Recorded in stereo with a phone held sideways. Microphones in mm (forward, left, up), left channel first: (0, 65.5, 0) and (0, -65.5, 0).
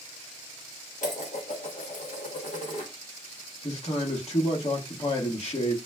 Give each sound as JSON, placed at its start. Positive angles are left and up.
{"t": 1.0, "sound": "dishes clattering", "side_deg": 75, "distance_m": 0.9}
{"t": 3.6, "sound": "a man speaking", "side_deg": 55, "distance_m": 1.2}